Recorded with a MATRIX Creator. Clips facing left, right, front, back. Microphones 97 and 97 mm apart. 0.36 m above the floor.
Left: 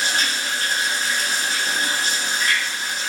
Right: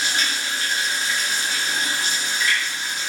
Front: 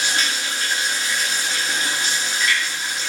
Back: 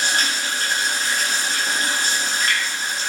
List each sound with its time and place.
0.0 s running water: 140° left, 6 m